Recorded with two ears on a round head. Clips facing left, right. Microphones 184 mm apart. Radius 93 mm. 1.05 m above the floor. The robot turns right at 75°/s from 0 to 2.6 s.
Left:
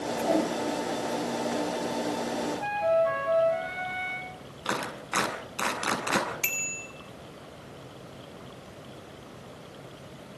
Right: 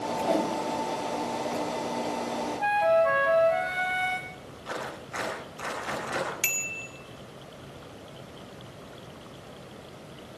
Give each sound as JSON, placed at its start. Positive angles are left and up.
{"t": 0.1, "sound": "a whoosh", "azimuth_deg": 165, "distance_m": 4.5}
{"t": 2.6, "sound": "a flute", "side_deg": -60, "distance_m": 1.0}
{"t": 4.7, "sound": "a clap", "side_deg": 85, "distance_m": 7.5}
{"t": 6.4, "sound": "a bicycle bell", "side_deg": -10, "distance_m": 2.5}